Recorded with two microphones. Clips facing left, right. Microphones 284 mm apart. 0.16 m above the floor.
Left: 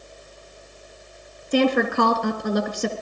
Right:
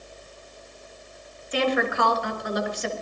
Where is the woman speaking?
55° left (ahead or behind), 2.5 m.